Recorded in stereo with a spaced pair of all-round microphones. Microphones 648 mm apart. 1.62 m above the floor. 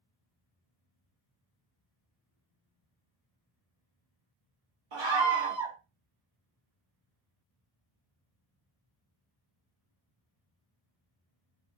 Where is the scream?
45° right (ahead or behind), 0.6 m.